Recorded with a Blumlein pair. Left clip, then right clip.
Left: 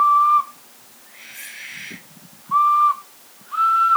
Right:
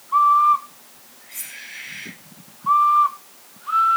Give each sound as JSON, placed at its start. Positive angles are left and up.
{"t": 1.3, "sound": "cutlery clinking", "azimuth_deg": -65, "distance_m": 9.0}